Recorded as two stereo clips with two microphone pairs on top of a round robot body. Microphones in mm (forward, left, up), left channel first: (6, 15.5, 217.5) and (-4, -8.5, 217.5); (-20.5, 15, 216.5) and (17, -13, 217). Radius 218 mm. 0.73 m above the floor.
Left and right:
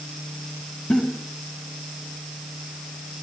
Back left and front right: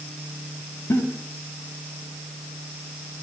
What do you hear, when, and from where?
0.9 s a giggle: 115° left, 5 m